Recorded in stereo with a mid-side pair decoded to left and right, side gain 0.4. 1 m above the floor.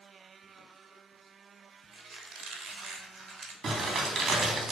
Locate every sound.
1.9 s a squeak: 65° right, 1.0 m
3.6 s crumpling: 65° right, 1.5 m